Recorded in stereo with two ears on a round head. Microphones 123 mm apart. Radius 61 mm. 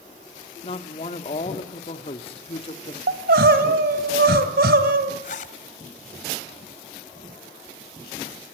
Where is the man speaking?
45° left (ahead or behind), 1.7 m.